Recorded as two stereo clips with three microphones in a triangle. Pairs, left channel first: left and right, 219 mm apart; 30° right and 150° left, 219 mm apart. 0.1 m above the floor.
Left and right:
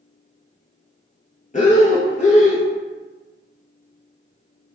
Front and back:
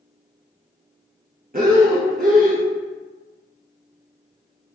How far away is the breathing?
About 0.8 m.